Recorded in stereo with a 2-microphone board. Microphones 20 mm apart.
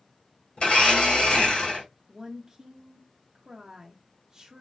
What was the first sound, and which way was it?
A blender, 65° left (ahead or behind).